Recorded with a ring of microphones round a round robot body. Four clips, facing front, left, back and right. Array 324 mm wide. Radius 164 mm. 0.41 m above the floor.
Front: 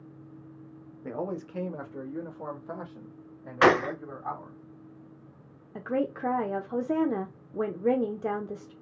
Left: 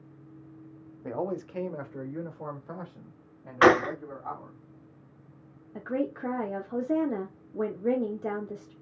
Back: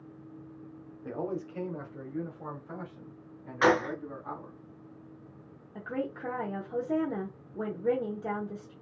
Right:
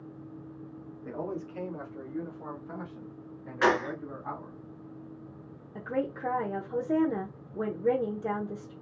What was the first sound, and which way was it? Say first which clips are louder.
A man speaking: left 4 dB, front 1 dB; 75° left.